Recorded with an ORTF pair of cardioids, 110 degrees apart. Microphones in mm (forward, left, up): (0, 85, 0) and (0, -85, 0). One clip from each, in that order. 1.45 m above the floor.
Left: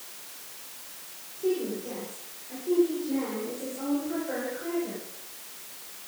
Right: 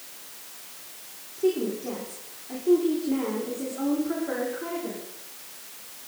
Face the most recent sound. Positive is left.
turn(degrees=-75)